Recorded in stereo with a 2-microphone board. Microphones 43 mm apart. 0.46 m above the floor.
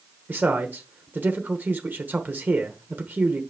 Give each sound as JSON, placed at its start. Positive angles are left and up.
{"t": 0.3, "sound": "a man speaking", "side_deg": -45, "distance_m": 1.1}